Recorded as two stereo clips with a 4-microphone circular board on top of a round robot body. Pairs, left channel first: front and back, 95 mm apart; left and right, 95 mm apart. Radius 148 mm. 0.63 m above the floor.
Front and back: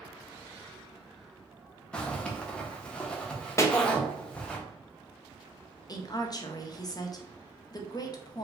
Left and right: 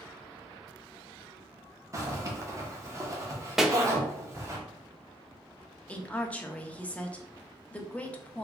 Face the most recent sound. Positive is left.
turn(degrees=20)